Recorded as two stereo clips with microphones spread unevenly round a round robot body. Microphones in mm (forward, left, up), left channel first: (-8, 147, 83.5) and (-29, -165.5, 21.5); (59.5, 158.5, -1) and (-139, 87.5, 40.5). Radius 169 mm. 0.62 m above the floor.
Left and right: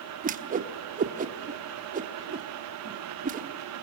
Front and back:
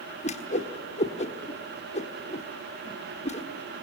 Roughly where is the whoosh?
Ahead right.